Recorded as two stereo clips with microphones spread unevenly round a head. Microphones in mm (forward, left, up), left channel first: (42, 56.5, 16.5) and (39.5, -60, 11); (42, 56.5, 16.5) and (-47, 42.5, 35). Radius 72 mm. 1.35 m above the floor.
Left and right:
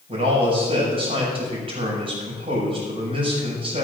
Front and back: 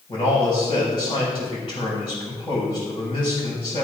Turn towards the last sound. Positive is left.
turn(degrees=-50)